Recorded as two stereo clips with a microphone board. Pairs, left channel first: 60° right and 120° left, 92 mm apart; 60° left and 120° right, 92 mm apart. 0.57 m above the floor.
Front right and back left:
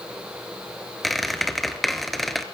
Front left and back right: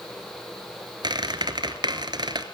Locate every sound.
1.0 s a squeak: 150° right, 1.0 m